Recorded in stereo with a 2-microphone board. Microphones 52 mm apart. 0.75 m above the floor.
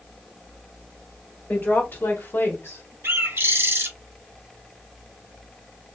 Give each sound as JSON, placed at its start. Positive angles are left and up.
{"t": 1.5, "sound": "a woman speaking", "side_deg": 35, "distance_m": 2.0}
{"t": 3.0, "sound": "a bird", "side_deg": -50, "distance_m": 0.9}